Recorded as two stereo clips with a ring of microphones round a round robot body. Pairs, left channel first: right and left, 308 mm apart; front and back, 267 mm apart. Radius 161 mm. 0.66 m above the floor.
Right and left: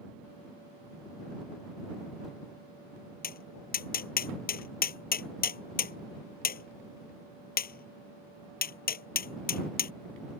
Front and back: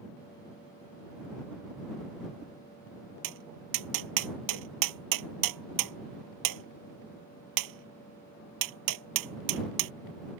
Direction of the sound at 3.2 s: 155° right.